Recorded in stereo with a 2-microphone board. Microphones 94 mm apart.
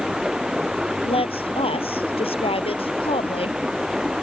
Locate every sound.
0.0 s running water: 5° right (ahead or behind)
1.1 s a woman speaking: 80° left